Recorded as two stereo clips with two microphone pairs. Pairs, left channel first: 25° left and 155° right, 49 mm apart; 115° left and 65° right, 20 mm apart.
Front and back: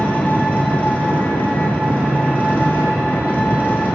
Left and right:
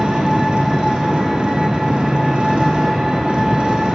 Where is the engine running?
30° right, 1.6 m.